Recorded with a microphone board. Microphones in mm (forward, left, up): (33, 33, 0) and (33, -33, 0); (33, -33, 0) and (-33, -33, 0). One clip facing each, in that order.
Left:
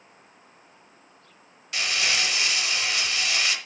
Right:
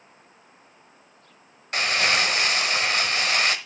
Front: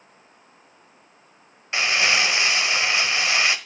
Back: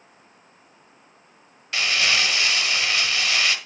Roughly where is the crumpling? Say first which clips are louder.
Right 4 dB, front 2 dB; ahead right.